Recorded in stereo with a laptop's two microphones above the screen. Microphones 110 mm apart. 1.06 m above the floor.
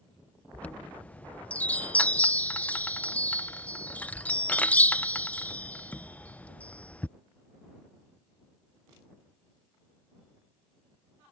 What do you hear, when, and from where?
0.5 s a chime: 15° left (ahead or behind)